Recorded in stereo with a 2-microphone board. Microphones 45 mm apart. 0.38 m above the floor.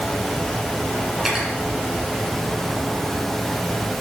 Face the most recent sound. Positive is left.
turn(degrees=-10)  # may be behind; listen again after turning